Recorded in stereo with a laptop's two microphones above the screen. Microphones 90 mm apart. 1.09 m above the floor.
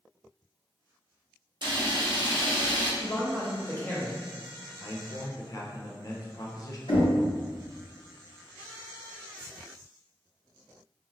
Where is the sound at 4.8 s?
40° left (ahead or behind), 0.5 m.